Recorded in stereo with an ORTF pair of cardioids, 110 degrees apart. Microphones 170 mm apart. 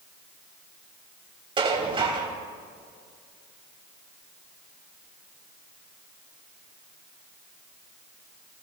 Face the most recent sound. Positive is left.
turn(degrees=-30)